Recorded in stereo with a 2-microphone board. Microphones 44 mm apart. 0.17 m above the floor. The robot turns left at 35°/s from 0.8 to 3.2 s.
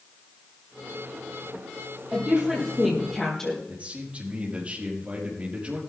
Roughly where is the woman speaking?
Behind right.